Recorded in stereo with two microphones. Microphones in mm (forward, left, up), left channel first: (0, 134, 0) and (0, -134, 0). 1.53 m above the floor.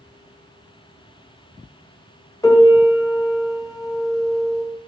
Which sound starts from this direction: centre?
A piano, at 2.4 s.